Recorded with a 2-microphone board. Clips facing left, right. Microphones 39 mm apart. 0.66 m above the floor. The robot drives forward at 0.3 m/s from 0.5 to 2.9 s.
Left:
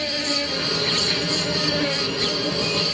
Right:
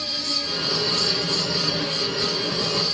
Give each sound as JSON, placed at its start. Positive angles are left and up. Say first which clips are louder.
{"t": 0.0, "sound": "an insect", "louder": "left 4 dB", "side_deg": 50}